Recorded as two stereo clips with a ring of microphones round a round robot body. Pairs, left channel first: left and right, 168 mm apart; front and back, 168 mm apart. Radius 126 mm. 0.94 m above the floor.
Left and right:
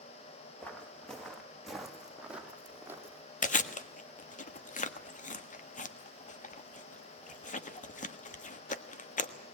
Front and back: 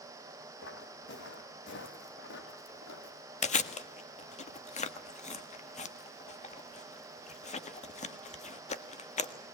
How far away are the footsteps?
About 4 m.